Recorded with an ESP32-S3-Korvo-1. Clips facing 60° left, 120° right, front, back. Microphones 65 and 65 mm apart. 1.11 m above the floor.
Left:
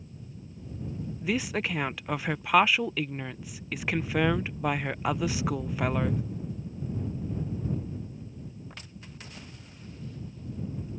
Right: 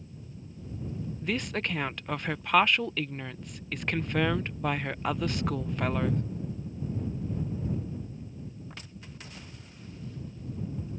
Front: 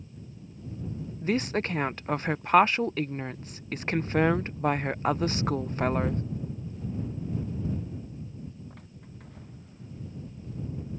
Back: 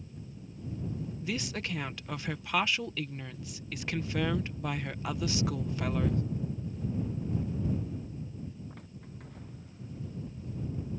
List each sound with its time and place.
1.2 s a woman speaking: 20° right